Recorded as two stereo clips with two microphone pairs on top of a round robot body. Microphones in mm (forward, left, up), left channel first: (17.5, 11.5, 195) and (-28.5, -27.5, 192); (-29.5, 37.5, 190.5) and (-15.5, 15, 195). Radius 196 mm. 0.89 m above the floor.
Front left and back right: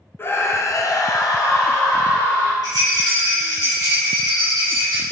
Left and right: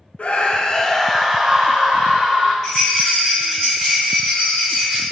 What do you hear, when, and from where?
0.2 s a scream: 95° left, 0.7 m; by 2.5 s 10° right, 1.0 m
2.6 s a rattle: 155° right, 0.5 m